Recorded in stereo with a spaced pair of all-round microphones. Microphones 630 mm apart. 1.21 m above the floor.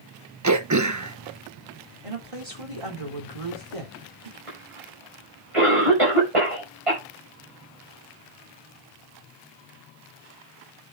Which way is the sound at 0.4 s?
30° right (ahead or behind).